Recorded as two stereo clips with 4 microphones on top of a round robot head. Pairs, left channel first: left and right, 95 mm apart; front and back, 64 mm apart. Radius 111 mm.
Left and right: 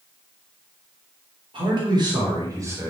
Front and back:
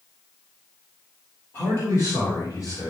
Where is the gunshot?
No gunshot in this recording.